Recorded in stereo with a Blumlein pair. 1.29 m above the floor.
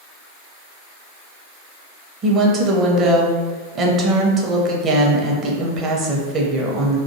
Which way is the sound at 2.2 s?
25° right.